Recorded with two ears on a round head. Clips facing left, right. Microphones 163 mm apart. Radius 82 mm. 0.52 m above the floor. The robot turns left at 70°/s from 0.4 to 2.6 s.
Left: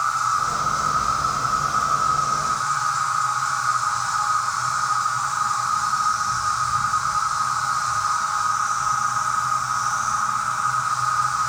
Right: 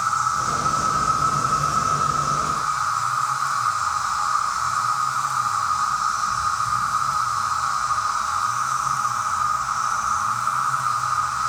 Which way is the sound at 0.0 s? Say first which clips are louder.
Even; 45° right.